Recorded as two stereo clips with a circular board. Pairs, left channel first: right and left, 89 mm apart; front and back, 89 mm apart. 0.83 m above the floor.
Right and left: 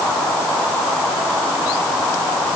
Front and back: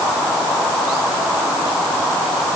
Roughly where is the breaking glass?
I don't hear breaking glass.